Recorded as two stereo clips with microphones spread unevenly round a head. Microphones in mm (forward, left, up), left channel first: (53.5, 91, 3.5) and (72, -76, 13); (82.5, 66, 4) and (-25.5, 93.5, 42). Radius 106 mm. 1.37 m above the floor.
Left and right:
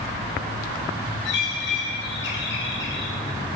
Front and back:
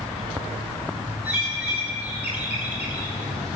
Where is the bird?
95° left, 4.5 m.